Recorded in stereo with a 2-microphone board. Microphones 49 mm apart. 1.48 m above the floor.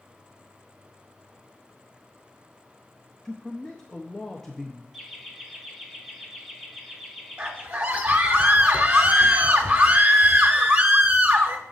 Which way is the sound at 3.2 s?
10° left (ahead or behind).